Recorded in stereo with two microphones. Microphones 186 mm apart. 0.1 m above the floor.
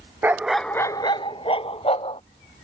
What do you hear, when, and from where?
0.2 s a dog barking: 10° right (ahead or behind); by 2.2 s 30° left (ahead or behind)